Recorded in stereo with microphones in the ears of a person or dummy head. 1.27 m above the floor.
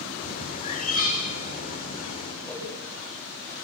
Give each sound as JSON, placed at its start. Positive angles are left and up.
{"t": 0.2, "sound": "a bird", "side_deg": 40, "distance_m": 3.5}
{"t": 2.4, "sound": "a whoosh", "side_deg": 10, "distance_m": 8.5}